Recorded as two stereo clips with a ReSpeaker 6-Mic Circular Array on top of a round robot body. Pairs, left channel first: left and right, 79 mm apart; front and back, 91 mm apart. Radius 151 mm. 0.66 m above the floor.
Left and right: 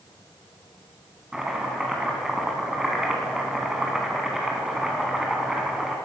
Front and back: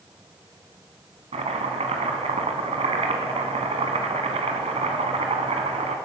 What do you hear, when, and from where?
1.3 s chopping: 175° right, 1.3 m